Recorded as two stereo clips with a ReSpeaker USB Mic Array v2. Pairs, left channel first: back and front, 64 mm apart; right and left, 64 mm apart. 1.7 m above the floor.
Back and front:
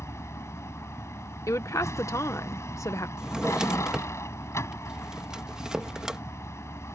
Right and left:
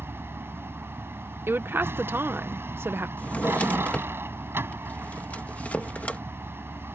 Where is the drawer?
70° right.